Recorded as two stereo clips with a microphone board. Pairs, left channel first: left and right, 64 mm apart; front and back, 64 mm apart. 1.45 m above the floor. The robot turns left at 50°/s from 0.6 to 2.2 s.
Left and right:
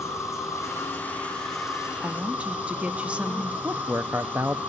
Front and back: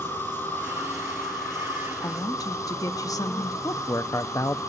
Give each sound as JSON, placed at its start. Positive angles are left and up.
{"t": 0.0, "sound": "an insect", "azimuth_deg": 55, "distance_m": 7.0}
{"t": 2.0, "sound": "a woman speaking", "azimuth_deg": -10, "distance_m": 1.5}
{"t": 3.6, "sound": "a man speaking", "azimuth_deg": -35, "distance_m": 0.7}